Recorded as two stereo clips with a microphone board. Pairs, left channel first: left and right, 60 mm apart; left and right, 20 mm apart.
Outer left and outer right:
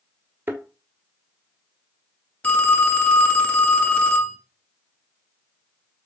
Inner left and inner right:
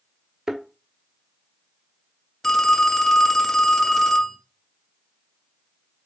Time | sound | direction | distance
0.5 | a thud | 35° right (ahead or behind) | 1.2 m
2.4 | a phone ringing | 20° left (ahead or behind) | 0.7 m